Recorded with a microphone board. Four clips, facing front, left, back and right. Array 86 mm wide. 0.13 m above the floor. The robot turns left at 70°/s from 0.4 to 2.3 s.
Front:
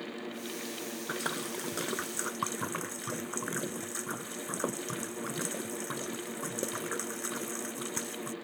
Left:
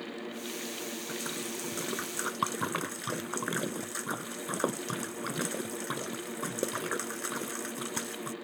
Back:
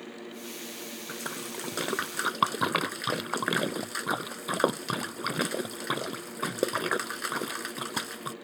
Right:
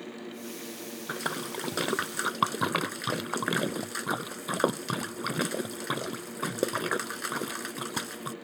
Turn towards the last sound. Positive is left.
turn(degrees=-150)